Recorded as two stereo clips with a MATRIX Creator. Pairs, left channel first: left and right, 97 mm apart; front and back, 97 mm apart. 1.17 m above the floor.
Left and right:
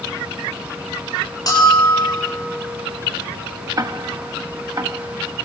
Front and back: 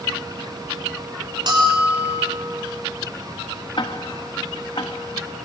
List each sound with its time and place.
1.5 s a bell: 145° left, 10 m
3.8 s ticking: 35° right, 1.2 m